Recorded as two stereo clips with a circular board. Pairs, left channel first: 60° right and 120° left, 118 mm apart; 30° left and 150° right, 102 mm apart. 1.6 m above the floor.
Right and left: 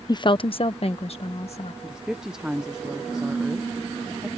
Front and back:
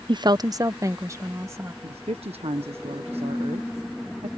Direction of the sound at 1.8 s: 155° right.